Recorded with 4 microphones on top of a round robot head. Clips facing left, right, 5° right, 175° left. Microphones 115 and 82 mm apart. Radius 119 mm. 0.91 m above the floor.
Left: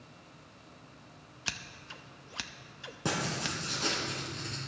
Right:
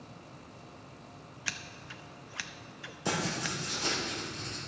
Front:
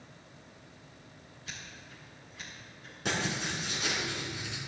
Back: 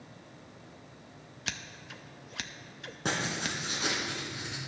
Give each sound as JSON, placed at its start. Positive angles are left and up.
{"t": 1.5, "sound": "scissors", "azimuth_deg": 160, "distance_m": 0.6}
{"t": 3.0, "sound": "writing", "azimuth_deg": 125, "distance_m": 3.5}